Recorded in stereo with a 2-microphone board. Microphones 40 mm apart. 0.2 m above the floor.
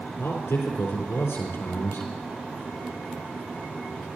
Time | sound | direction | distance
0.2 | a man speaking | 75° left (ahead or behind) | 4 m